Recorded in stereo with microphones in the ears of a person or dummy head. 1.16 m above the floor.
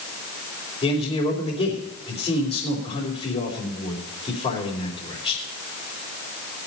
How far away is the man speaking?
About 3.5 m.